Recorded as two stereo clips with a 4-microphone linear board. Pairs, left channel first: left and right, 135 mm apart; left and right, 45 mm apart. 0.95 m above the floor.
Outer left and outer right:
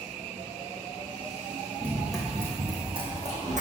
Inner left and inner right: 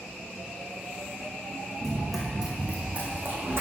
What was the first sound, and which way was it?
Running footsteps, 10° left (ahead or behind).